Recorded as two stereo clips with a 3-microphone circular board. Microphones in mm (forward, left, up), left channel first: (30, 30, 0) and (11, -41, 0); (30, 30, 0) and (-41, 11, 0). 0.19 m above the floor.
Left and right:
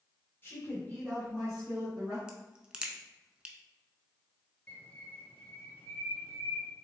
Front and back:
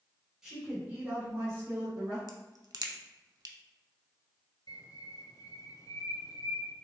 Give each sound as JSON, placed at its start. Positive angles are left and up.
{"t": 0.4, "sound": "a woman speaking", "azimuth_deg": 115, "distance_m": 1.7}
{"t": 2.3, "sound": "a crack", "azimuth_deg": 180, "distance_m": 0.6}
{"t": 4.7, "sound": "a bird", "azimuth_deg": 10, "distance_m": 0.8}